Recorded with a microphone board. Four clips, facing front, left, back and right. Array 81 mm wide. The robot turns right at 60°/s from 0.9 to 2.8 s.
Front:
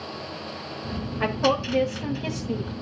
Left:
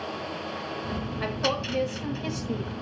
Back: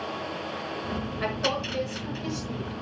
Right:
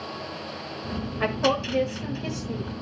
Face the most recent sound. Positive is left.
turn(degrees=35)